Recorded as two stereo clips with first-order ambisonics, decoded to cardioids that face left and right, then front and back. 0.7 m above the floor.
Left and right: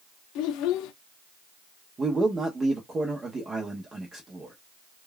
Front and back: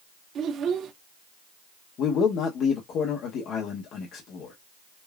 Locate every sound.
0.3 s a child speaking: 125° left, 0.6 m
2.0 s a man speaking: 25° right, 0.9 m